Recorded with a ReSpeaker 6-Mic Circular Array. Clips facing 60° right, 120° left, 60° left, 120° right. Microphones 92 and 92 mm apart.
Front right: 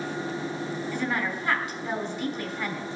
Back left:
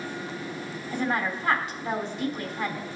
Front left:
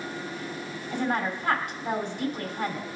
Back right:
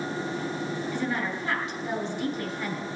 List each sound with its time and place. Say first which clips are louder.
0.9 s a woman speaking: back left 4 dB, front left 6 dB; 80° left, 2.5 m